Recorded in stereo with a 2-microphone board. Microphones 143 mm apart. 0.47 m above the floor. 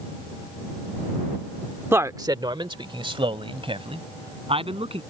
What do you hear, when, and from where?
1.9 s a man speaking: 15° right (ahead or behind); by 5.0 s 40° right (ahead or behind)